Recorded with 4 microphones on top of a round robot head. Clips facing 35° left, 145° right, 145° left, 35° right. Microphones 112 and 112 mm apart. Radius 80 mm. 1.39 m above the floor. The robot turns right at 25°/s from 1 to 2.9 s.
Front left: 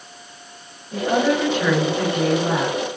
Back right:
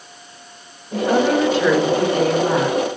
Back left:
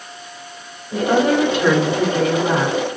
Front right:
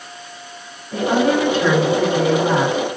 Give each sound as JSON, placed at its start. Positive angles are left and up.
{"t": 0.9, "sound": "a woman speaking", "azimuth_deg": -155, "distance_m": 1.9}